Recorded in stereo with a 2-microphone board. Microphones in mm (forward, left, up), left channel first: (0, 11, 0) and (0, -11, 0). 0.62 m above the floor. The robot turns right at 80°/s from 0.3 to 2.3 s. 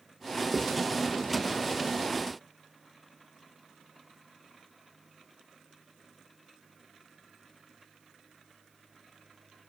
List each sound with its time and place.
0.5 s writing: 45° left (ahead or behind), 0.6 m; by 0.8 s 25° left (ahead or behind), 0.6 m